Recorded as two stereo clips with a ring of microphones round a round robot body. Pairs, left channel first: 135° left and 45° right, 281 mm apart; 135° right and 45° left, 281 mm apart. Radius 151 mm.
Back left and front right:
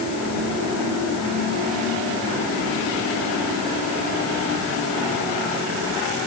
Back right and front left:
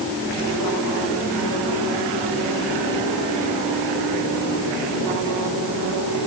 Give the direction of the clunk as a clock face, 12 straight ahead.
I don't hear a clunk.